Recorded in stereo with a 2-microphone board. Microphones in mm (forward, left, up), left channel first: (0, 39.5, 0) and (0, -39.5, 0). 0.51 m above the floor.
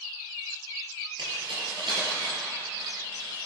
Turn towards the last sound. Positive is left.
turn(degrees=-85)